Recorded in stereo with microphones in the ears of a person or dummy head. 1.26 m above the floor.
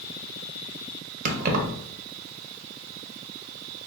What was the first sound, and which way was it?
Keys jangling, 45° right (ahead or behind).